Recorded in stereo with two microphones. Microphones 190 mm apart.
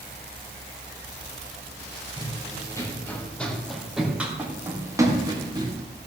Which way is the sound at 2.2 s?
20° left (ahead or behind).